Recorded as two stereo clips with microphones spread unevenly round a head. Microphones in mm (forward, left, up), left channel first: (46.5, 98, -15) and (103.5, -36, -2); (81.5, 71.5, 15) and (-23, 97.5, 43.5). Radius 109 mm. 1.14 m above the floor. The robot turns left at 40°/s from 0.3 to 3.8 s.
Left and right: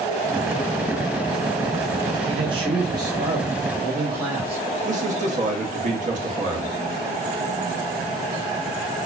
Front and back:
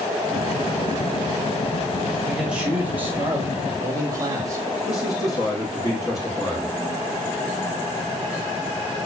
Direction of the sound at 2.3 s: 80° right.